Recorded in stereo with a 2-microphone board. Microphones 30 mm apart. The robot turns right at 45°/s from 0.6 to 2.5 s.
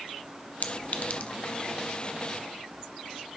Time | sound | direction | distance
0.6 | a clink | 65° left (ahead or behind) | 0.8 m